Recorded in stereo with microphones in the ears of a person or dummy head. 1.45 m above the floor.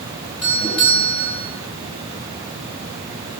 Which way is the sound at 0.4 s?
Centre (ahead or behind).